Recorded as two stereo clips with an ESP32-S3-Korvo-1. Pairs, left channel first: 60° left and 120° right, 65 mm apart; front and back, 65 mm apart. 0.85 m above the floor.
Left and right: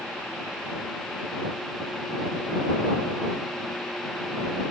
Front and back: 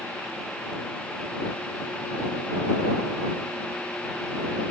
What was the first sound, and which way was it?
Only background noise.